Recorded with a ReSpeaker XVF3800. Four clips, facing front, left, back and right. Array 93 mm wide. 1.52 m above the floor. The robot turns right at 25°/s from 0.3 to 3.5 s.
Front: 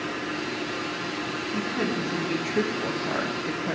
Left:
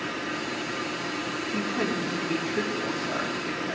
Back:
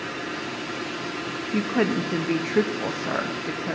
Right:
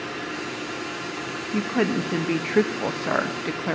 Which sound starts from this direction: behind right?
A woman speaking, at 1.5 s.